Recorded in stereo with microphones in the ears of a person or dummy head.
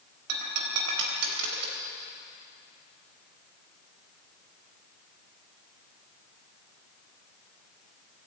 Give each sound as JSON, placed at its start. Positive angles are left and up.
{"t": 0.3, "sound": "breaking glass", "side_deg": -60, "distance_m": 3.5}